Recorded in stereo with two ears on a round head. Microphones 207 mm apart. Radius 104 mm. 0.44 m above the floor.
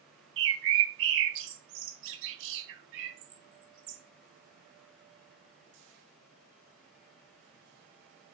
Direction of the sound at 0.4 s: 60° right (ahead or behind).